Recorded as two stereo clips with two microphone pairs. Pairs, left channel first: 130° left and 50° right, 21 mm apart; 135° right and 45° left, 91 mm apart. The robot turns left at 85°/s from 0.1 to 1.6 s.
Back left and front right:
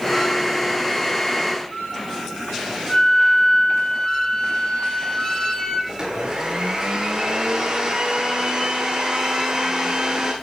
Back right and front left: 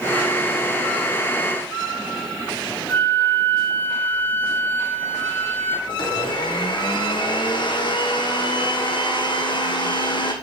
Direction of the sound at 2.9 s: 160° left.